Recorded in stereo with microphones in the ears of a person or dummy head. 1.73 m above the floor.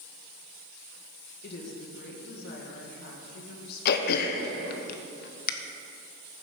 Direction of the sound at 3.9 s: 55° left (ahead or behind).